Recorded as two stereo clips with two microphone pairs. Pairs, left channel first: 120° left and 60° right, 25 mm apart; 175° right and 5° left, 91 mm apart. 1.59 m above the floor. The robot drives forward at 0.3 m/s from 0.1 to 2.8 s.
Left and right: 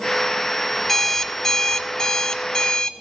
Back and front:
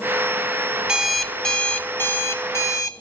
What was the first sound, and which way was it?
An alarm clock, 70° left.